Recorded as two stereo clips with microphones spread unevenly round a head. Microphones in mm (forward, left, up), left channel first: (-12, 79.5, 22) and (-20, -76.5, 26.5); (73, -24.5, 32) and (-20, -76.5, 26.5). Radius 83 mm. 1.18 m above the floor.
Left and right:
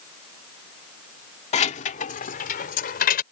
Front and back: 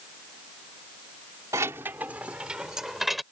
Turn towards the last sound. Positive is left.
turn(degrees=120)